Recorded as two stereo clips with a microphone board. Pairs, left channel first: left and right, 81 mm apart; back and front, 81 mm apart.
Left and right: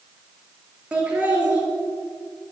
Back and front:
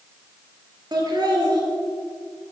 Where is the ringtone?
No ringtone in this recording.